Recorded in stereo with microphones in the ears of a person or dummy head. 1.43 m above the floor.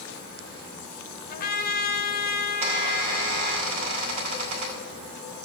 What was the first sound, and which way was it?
A trumpet, 55° left (ahead or behind).